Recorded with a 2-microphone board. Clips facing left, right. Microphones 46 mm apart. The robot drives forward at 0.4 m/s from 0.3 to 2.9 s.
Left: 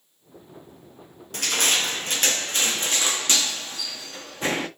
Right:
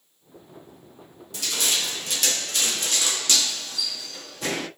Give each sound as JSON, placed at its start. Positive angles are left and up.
{"t": 1.3, "sound": "crushing", "side_deg": 50, "distance_m": 0.9}